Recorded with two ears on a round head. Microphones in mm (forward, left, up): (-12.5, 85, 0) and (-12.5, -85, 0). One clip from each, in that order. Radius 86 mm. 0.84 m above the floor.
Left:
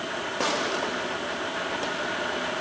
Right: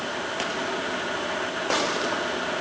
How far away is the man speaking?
No man speaking in this recording.